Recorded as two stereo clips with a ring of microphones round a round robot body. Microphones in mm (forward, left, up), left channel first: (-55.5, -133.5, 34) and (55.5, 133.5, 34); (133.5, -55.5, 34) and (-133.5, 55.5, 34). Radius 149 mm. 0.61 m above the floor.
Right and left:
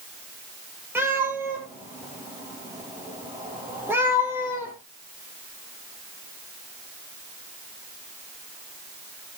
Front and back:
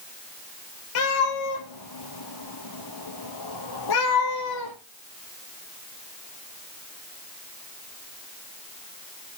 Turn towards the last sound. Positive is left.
turn(degrees=-15)